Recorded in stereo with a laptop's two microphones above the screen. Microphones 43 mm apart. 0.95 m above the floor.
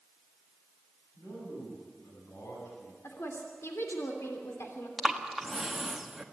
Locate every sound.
1.2 s a man speaking: 70° left (ahead or behind), 9 m; by 2.9 s 75° left (ahead or behind), 9 m
3.0 s a woman speaking: 80° left, 3 m
5.0 s breathing: 5° right (ahead or behind), 1.4 m